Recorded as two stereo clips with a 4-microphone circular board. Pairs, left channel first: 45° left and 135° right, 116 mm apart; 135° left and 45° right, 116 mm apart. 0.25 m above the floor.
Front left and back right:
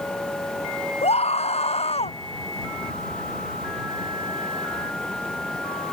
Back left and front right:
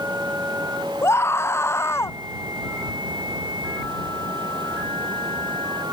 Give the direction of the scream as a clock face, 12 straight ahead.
10 o'clock.